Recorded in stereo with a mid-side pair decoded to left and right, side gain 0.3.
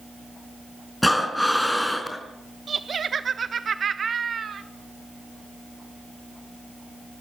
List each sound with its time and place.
1.0 s breathing: 10° left, 4.5 m
2.7 s laughter: 60° right, 1.5 m